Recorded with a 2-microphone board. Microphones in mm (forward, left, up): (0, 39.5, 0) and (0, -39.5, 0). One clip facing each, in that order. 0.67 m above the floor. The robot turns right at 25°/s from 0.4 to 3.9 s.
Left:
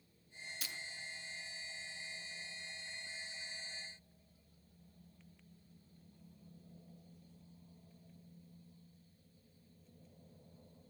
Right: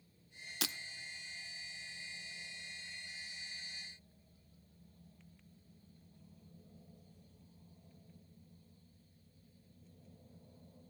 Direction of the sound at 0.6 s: 80° right.